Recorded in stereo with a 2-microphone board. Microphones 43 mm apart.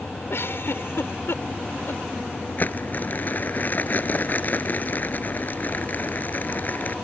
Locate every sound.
0.3 s a giggle: 70° left (ahead or behind)
2.6 s crumpling: 40° left (ahead or behind)